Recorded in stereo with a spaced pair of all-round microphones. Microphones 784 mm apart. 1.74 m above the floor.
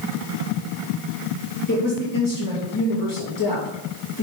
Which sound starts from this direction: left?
A woman speaking, at 1.7 s.